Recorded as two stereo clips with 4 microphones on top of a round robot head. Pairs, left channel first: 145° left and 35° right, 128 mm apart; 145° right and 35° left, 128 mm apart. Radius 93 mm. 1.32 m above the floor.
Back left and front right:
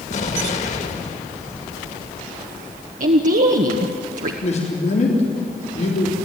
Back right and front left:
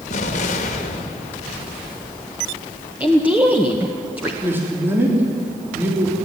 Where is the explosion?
Straight behind, 2 m.